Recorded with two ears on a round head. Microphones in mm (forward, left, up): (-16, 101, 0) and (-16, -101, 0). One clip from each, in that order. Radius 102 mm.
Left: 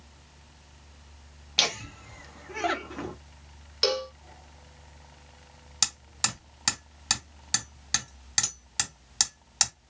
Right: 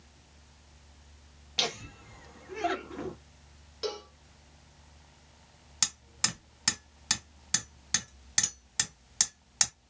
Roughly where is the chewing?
I don't hear chewing.